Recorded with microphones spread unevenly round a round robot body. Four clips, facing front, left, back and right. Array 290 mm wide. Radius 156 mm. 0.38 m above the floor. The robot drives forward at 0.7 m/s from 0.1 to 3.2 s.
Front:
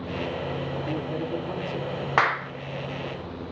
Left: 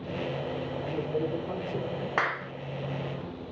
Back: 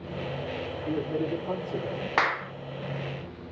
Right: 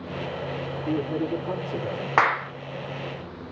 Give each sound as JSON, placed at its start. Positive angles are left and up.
{"t": 0.8, "sound": "a man speaking", "azimuth_deg": -100, "distance_m": 8.5}
{"t": 2.2, "sound": "a clap", "azimuth_deg": -80, "distance_m": 1.0}